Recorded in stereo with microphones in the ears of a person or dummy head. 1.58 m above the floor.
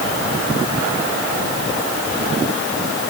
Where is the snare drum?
No snare drum in this recording.